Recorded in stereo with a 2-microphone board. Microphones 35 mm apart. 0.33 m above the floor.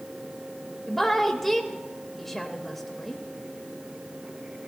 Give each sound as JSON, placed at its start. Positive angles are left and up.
{"t": 0.9, "sound": "a woman speaking", "side_deg": 5, "distance_m": 1.0}